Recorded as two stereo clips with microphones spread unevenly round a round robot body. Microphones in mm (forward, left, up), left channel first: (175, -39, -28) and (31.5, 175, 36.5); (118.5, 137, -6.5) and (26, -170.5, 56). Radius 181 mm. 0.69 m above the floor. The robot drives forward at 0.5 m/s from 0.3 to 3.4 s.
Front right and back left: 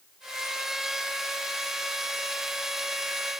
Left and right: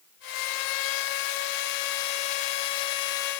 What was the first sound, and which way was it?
Only background noise.